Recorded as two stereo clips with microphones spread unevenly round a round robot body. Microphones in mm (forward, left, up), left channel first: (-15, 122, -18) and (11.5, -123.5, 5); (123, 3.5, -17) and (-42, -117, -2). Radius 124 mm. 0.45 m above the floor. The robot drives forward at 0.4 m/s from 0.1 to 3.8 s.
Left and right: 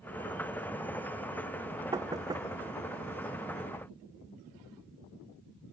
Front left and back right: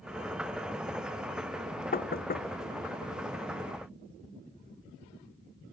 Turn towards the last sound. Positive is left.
turn(degrees=-10)